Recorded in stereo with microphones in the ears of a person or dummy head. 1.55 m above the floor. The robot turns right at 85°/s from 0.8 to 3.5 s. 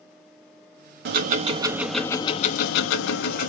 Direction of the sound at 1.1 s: 70° right.